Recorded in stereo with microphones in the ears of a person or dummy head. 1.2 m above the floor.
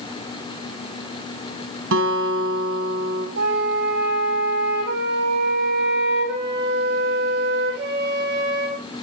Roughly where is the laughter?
I don't hear laughter.